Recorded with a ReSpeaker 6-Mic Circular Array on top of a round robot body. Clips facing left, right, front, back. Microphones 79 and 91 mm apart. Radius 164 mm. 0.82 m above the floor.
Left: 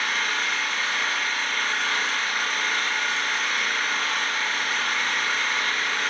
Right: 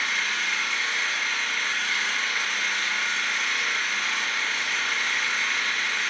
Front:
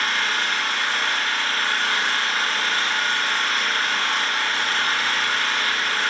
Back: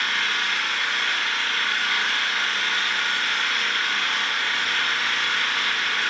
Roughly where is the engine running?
Ahead left.